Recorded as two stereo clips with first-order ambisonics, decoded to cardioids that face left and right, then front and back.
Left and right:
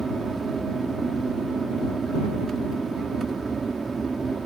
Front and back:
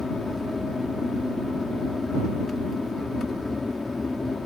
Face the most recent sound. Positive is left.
turn(degrees=-60)